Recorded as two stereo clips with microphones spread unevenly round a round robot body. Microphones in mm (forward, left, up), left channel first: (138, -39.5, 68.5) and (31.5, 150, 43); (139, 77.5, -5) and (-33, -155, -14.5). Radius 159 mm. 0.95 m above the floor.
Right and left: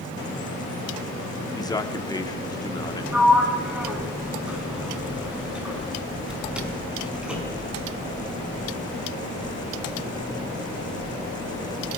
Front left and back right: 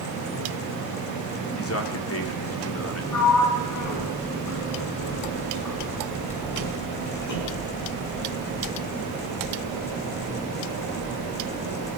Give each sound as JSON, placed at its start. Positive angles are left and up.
{"t": 1.5, "sound": "a man speaking", "azimuth_deg": 15, "distance_m": 3.0}
{"t": 3.1, "sound": "a sliding door", "azimuth_deg": 35, "distance_m": 5.0}